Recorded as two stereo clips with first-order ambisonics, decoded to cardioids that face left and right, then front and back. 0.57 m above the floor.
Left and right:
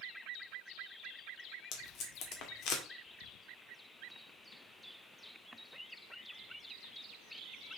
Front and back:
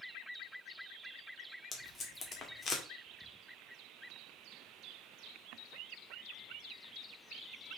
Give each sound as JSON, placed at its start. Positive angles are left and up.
{"t": 1.7, "sound": "tape being pulled", "azimuth_deg": 65, "distance_m": 1.8}